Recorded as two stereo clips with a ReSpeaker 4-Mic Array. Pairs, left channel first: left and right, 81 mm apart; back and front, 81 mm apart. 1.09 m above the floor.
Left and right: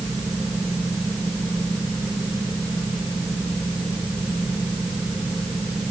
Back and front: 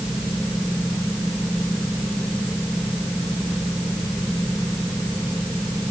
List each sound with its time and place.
Only background noise.